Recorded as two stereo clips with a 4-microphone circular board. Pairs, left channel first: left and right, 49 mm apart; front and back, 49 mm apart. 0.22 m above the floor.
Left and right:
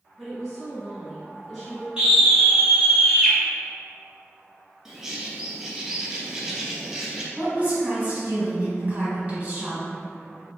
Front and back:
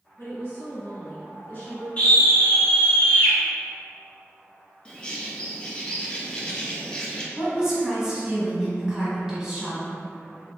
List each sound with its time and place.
0.2 s a woman speaking: straight ahead, 1.9 m
2.0 s a scream: 35° right, 1.2 m
4.8 s a bird: 30° right, 0.5 m
7.4 s a woman speaking: 115° right, 1.2 m